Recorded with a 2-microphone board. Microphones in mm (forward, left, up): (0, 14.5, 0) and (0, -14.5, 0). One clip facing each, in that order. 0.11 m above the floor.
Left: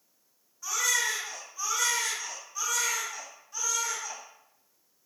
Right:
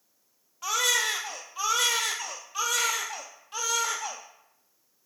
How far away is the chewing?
No chewing in this recording.